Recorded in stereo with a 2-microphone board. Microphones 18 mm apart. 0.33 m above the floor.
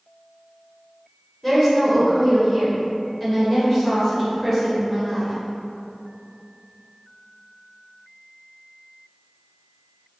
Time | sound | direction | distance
1.4 | a woman speaking | 15° left (ahead or behind) | 1.4 m